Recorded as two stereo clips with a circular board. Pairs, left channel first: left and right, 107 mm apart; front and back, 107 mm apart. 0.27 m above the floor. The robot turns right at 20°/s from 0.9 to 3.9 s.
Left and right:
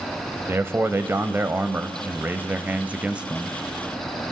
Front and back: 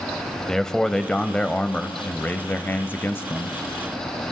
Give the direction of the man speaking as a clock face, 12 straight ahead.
3 o'clock.